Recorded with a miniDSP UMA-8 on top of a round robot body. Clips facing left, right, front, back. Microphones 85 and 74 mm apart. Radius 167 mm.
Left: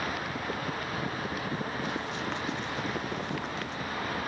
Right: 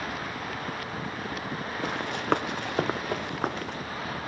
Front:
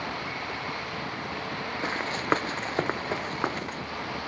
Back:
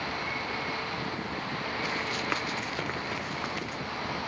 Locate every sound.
1.8 s running footsteps: 60° right; by 3.8 s 55° right